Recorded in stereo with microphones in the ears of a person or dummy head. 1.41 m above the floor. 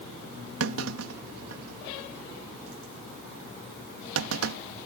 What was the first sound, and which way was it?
A clunk, 80° right.